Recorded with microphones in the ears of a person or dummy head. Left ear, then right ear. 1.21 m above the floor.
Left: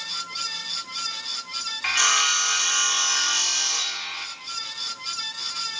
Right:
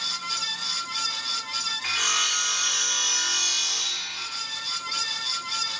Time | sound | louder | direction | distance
1.8 | sawing | left 5 dB | 35° left (ahead or behind) | 1.2 m